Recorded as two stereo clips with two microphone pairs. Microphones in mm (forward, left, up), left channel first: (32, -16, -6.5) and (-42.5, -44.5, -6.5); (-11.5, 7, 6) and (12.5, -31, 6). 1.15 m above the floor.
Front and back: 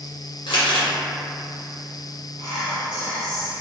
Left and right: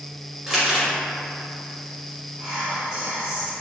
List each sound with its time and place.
0.5 s crumpling: 25° left, 0.8 m
2.4 s whispering: 135° right, 1.5 m